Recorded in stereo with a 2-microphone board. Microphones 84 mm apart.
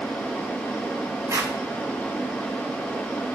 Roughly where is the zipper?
Right.